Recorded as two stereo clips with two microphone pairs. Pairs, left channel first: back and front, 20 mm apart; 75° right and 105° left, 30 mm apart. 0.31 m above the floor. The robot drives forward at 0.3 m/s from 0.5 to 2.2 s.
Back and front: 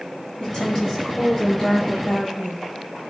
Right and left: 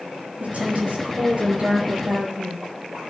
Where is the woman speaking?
135° left, 5 m; by 2.7 s 140° left, 5 m.